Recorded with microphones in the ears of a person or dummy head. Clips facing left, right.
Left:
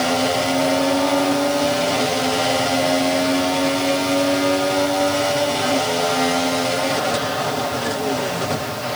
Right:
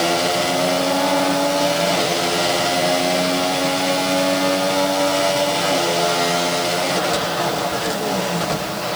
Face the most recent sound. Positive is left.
No sound to turn to.